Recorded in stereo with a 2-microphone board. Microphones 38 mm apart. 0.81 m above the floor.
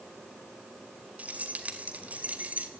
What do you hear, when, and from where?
1.2 s keys jangling: 45° right (ahead or behind), 2 m